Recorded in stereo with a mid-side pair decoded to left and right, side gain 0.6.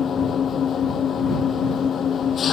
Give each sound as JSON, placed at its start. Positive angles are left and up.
{"t": 0.0, "sound": "an engine running", "azimuth_deg": 35}